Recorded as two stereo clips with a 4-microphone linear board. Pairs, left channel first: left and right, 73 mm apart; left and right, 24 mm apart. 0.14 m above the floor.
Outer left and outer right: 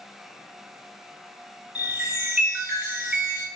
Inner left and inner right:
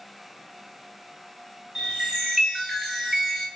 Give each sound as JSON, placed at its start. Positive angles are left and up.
{"t": 1.8, "sound": "a chime", "side_deg": -10, "distance_m": 1.4}